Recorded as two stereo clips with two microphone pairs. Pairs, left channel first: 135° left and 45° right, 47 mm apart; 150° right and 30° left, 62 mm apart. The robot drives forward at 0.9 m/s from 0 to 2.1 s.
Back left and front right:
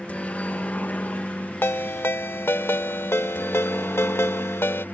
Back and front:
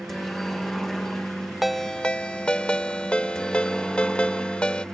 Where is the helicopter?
125° left; by 5.0 s 130° left.